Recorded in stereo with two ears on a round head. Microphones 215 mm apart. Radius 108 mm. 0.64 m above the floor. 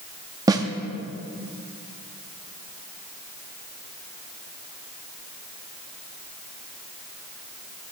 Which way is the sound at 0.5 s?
15° right (ahead or behind).